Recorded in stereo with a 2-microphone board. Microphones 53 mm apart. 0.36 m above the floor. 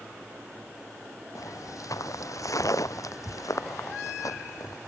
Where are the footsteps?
90° left; by 4.8 s 85° left.